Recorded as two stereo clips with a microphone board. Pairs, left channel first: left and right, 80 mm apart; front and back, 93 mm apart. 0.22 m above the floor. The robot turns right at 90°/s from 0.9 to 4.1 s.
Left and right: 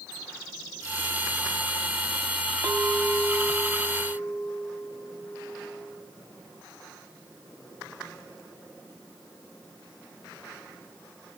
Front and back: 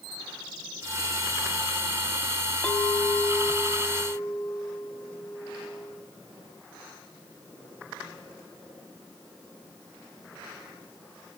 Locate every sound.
2.6 s a clink: 60° right, 0.7 m; by 6.1 s 70° left, 0.7 m